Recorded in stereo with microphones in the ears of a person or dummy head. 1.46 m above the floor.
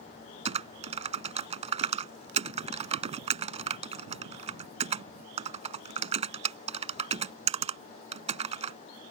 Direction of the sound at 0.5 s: 35° right (ahead or behind).